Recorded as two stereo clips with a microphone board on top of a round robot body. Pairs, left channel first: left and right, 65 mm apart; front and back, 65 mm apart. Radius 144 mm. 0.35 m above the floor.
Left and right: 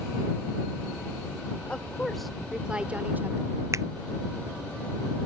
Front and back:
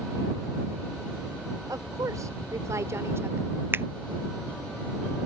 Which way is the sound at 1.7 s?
160° left.